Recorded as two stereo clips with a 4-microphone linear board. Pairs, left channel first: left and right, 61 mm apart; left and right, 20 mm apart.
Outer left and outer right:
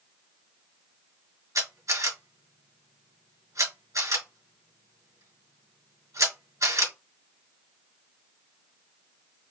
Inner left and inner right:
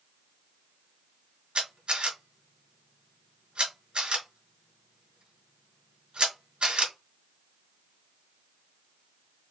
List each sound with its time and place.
1.6 s a camera shutter: 60° right (ahead or behind), 2.5 m